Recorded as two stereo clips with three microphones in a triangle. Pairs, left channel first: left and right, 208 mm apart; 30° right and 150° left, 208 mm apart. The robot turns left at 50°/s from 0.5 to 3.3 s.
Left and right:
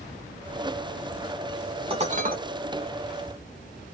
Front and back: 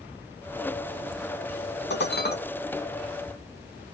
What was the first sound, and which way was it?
Dishes clattering, 30° right.